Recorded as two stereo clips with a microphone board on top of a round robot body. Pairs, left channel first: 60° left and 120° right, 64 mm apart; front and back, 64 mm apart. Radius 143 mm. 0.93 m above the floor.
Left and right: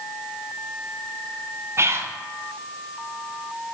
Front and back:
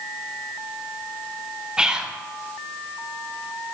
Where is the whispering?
105° right, 0.9 m.